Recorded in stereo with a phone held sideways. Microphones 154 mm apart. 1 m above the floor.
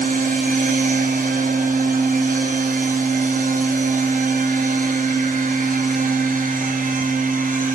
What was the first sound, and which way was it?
A machine running, 65° right (ahead or behind).